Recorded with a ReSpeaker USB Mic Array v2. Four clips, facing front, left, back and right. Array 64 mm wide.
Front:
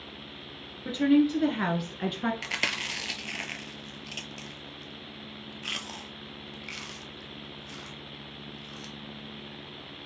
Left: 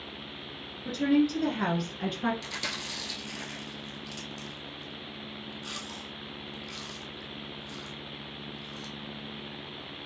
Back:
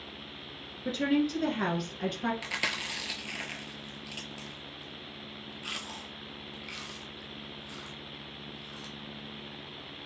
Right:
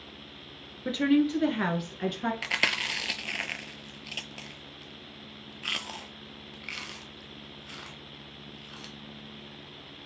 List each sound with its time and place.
0.8 s a woman speaking: 80° right, 1.5 m; by 2.3 s 10° left, 1.3 m
2.4 s chewing: 70° right, 0.5 m